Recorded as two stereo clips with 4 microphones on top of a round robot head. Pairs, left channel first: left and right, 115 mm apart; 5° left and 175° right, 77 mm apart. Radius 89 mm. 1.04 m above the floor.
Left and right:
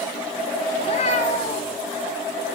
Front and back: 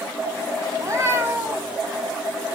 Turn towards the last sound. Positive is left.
turn(degrees=110)